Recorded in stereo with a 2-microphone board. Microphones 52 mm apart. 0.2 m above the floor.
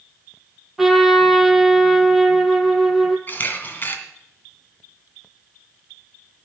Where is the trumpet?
5° right (ahead or behind), 1.2 m.